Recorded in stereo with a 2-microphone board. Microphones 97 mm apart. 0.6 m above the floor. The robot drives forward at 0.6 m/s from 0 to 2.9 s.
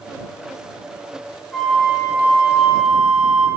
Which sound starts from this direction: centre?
A flute, at 1.5 s.